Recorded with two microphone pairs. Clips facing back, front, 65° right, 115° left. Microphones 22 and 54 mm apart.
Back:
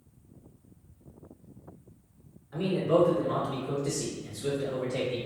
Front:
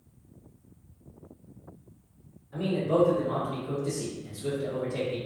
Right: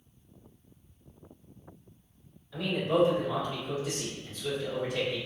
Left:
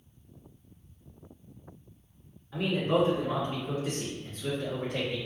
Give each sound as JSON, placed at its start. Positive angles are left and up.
{"t": 2.5, "sound": "a man speaking", "azimuth_deg": 160, "distance_m": 1.4}